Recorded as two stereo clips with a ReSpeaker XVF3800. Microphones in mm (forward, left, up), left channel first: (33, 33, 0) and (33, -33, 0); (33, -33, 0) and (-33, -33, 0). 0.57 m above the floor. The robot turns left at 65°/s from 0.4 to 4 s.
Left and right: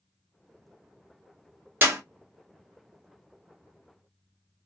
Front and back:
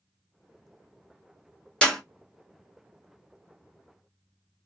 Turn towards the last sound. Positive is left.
turn(degrees=155)